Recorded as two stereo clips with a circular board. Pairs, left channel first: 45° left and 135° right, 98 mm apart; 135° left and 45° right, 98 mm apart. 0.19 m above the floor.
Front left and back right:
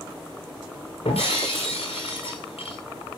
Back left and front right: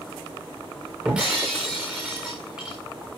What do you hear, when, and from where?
1.1 s breaking glass: 35° left, 6 m